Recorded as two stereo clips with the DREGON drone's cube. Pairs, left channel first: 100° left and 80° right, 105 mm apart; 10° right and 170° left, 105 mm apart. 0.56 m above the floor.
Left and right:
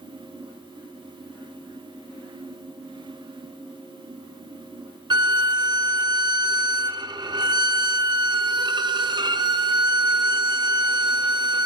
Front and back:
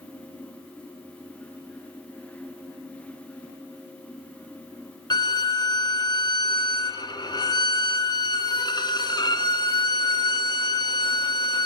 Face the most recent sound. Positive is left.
turn(degrees=-50)